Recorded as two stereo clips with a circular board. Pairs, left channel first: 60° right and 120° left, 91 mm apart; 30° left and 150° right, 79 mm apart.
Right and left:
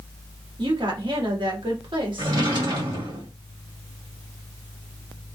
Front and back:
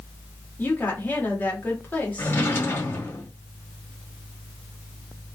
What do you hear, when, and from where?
0.6 s a woman speaking: 95° left, 1.6 m
2.2 s a drawer: 90° left, 1.8 m